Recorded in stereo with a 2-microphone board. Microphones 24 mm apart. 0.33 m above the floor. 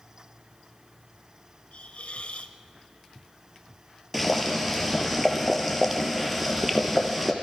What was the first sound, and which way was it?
A hiss, 65° left (ahead or behind).